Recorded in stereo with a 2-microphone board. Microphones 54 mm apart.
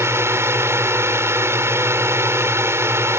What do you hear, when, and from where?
0.0 s a drone: 55° right (ahead or behind)